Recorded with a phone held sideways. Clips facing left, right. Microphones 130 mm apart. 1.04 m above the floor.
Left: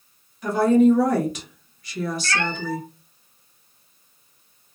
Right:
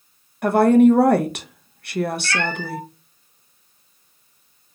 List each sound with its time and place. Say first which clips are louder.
0.4 s a woman speaking: right 3 dB; 65° right (ahead or behind), 0.6 m
2.2 s a cat meowing: right 1 dB; 35° left (ahead or behind), 0.9 m